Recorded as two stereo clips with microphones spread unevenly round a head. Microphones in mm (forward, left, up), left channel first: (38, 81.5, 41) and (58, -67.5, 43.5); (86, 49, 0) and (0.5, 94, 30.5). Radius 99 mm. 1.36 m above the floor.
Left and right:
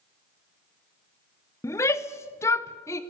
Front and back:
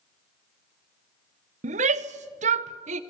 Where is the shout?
175° left, 0.8 m.